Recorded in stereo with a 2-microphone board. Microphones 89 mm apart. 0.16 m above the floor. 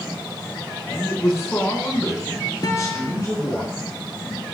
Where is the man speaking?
30° left (ahead or behind), 1.9 m; by 3.6 s 35° left (ahead or behind), 2.0 m.